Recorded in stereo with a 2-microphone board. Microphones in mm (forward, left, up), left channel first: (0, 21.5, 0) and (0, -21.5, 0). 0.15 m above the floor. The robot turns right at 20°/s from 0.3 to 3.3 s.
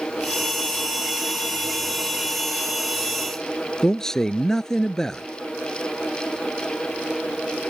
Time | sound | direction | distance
3.8 | a man speaking | 10° left (ahead or behind) | ?